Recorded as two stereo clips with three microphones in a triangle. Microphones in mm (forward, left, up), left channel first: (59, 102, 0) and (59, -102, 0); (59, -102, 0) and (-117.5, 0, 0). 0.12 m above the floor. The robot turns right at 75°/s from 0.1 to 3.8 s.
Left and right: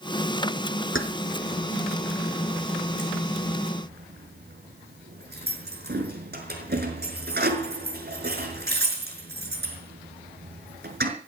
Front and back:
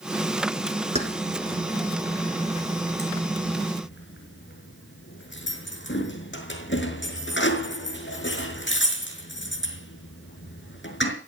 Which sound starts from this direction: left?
Keys jangling, at 0.9 s.